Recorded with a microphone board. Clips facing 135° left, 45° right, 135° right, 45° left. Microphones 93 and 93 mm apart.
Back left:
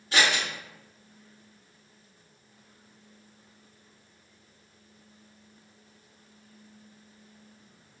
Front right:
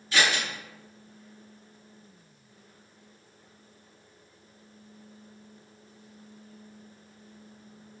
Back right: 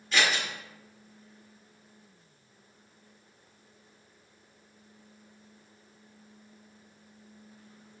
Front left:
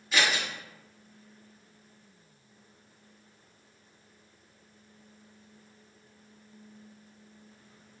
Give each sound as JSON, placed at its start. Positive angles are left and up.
{"t": 0.1, "sound": "scissors", "azimuth_deg": 125, "distance_m": 1.6}